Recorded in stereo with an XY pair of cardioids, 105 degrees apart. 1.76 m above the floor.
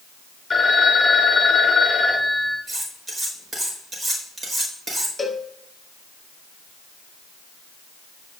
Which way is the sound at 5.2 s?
15° left.